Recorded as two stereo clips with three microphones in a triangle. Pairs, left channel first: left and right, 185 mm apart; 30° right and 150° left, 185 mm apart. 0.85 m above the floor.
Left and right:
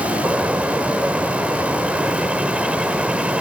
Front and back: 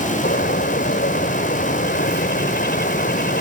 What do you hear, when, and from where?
0.2 s a bird: 5° right